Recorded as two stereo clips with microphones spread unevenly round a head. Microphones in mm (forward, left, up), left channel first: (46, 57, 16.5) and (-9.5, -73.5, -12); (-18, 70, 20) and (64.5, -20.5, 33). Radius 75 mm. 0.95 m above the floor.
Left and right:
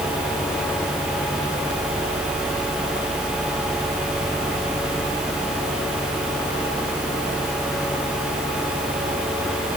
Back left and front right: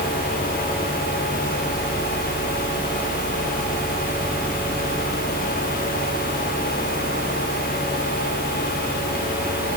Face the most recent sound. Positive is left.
No sound to turn to.